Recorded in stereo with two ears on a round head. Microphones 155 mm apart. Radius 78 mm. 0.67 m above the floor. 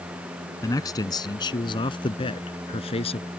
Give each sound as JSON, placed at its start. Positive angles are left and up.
{"t": 0.6, "sound": "a man speaking", "side_deg": 20}